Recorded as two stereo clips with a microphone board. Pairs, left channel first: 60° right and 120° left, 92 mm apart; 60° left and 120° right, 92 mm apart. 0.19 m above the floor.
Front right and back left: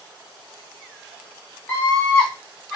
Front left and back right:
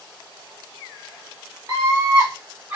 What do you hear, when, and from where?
1.7 s a scream: 110° right, 1.9 m; by 2.8 s 145° right, 1.7 m